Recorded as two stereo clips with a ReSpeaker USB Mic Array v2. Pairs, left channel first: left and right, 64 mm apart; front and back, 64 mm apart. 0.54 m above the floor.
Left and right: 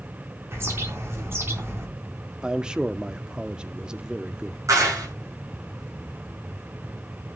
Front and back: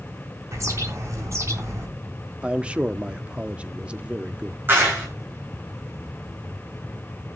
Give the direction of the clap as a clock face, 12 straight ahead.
4 o'clock.